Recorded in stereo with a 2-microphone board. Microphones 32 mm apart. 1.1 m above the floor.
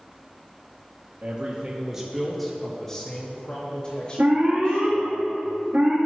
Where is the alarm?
65° right (ahead or behind), 2.5 m.